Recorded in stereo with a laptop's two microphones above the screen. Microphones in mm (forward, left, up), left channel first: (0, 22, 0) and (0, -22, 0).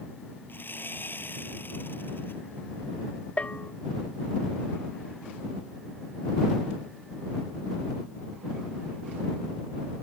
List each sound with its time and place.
0.5 s sawing: 60° left (ahead or behind)
3.4 s a bell: 35° left (ahead or behind)